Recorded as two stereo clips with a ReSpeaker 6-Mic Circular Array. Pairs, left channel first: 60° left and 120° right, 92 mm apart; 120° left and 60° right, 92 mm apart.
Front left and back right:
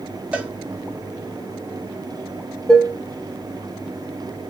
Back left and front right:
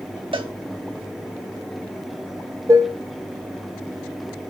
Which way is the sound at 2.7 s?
20° right.